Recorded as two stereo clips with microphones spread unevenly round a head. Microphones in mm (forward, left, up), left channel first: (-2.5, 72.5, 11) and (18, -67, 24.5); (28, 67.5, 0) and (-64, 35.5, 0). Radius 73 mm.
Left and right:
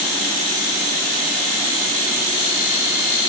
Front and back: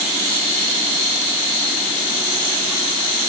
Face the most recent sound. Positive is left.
No sound to turn to.